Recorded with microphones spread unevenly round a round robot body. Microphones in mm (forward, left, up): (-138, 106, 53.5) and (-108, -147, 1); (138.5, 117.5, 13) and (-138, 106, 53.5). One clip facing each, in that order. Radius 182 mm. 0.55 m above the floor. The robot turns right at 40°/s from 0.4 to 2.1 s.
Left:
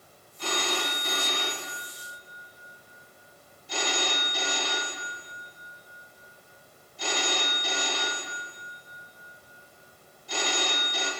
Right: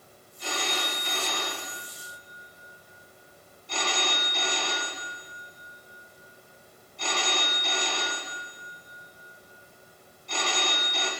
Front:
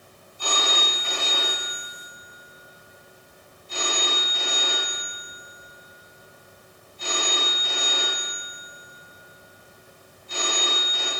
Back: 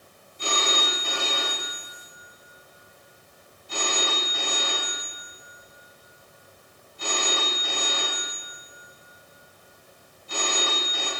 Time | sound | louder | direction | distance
0.4 | a phone ringing | left 2 dB, back 1 dB | 115° left | 4 m